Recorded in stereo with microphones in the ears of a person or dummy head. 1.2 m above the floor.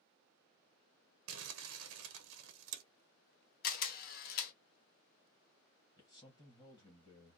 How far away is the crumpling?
About 0.7 m.